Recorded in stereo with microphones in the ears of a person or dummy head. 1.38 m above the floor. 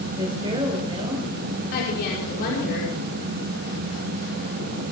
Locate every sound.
0.2 s a woman speaking: 30° right (ahead or behind), 5 m
1.7 s a woman speaking: 50° left (ahead or behind), 5 m